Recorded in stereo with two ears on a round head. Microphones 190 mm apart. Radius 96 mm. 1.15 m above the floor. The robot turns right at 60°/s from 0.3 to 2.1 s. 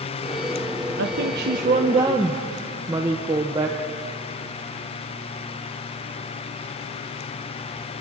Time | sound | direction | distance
1.0 | a woman speaking | 85° right | 1.1 m